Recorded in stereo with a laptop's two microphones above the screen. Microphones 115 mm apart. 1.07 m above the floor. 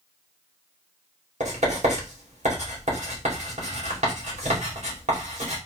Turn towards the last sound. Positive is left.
turn(degrees=-80)